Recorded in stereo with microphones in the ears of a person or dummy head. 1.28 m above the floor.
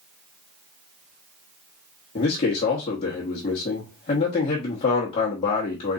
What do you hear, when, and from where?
2.1 s a man speaking: 35° left (ahead or behind), 1.2 m